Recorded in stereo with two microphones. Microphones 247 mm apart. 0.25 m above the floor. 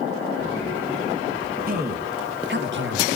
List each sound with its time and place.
1.7 s a man speaking: 40° right (ahead or behind), 3 m; by 3.2 s 55° right (ahead or behind), 2.5 m